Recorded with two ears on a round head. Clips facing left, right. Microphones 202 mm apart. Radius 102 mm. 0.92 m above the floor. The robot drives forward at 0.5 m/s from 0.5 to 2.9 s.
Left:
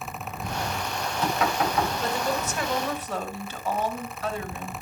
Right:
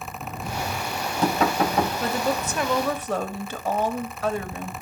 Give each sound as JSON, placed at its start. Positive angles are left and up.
{"t": 0.2, "sound": "knocking", "side_deg": -35, "distance_m": 4.5}
{"t": 2.0, "sound": "a woman speaking", "side_deg": -55, "distance_m": 1.9}